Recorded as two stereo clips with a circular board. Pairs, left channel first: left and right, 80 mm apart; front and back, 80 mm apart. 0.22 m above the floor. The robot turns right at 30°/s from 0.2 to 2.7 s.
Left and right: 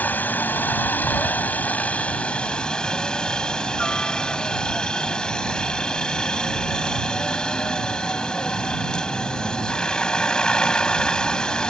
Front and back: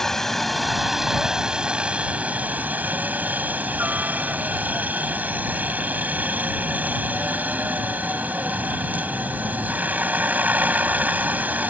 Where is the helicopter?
80° left; by 11.7 s 155° left.